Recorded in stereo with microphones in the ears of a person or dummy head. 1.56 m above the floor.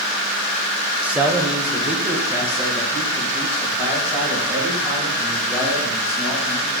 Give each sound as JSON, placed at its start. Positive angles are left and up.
{"t": 1.0, "sound": "a man speaking", "side_deg": -10, "distance_m": 0.8}